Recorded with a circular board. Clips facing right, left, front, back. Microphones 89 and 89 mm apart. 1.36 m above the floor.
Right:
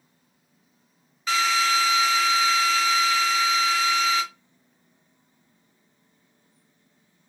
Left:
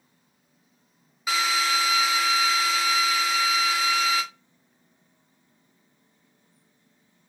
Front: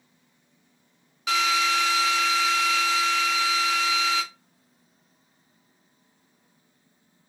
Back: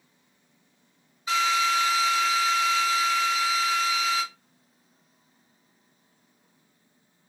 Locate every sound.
1.3 s a drill: 10° left, 0.7 m